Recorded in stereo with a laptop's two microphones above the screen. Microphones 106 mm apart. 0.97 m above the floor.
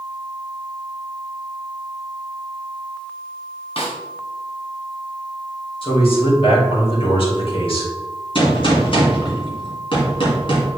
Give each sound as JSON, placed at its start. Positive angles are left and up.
{"t": 3.8, "sound": "a snare drum", "side_deg": 65, "distance_m": 1.3}
{"t": 5.8, "sound": "a man speaking", "side_deg": 60, "distance_m": 2.5}
{"t": 8.3, "sound": "a gunshot", "side_deg": 55, "distance_m": 2.0}